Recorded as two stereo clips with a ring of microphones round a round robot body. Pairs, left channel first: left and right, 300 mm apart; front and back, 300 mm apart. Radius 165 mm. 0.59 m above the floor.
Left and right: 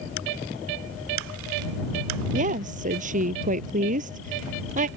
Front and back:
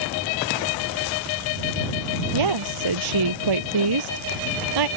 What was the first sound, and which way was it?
A woman speaking, 160° right.